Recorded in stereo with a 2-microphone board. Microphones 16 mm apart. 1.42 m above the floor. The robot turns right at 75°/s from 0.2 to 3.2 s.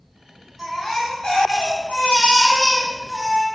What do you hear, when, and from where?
0.6 s a baby crying: 15° right, 4 m; by 3.5 s straight behind, 4 m